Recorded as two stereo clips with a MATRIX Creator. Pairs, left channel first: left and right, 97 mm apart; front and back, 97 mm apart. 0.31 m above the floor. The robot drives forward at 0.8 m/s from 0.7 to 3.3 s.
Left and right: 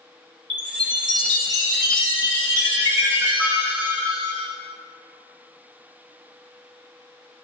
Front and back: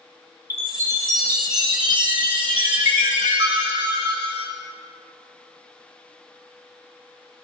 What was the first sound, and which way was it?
A chime, 120° right.